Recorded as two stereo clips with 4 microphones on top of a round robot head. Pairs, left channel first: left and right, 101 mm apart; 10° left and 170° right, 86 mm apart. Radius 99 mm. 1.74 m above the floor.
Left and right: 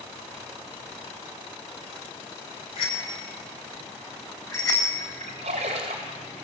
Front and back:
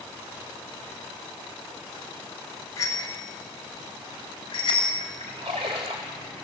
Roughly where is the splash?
Behind right.